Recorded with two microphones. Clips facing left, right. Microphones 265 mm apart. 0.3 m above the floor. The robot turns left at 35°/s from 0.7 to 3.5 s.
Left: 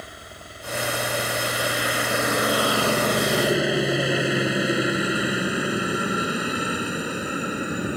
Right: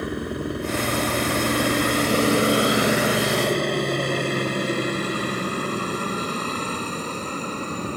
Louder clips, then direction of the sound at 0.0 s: Right 17 dB; 70° right (ahead or behind).